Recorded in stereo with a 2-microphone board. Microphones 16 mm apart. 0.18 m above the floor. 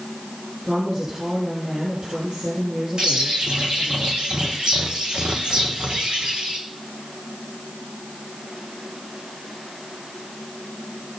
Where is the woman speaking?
55° right (ahead or behind), 4.5 m.